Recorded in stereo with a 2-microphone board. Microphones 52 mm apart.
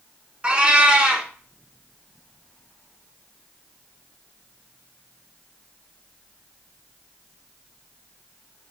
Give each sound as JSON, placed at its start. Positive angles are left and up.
{"t": 0.4, "sound": "a cat meowing", "side_deg": -25, "distance_m": 0.9}